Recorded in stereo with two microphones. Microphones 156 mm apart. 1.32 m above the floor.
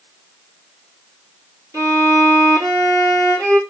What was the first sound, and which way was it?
A violin, 20° right (ahead or behind).